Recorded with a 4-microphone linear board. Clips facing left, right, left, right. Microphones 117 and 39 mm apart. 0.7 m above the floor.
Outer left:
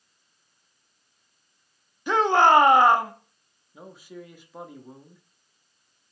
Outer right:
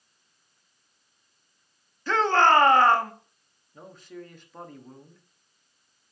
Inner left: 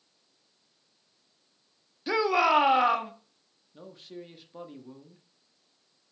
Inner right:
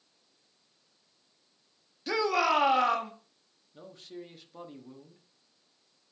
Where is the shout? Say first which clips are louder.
Outer left 2 dB, inner left 3 dB; 15° left (ahead or behind), 0.8 m.